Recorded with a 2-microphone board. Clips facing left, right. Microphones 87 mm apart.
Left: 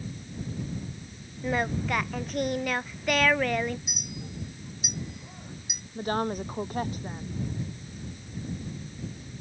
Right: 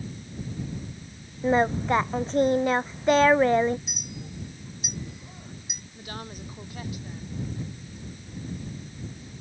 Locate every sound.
1.4 s singing: 25° right (ahead or behind)
3.9 s a clink: 5° left (ahead or behind)
6.0 s a woman speaking: 45° left (ahead or behind)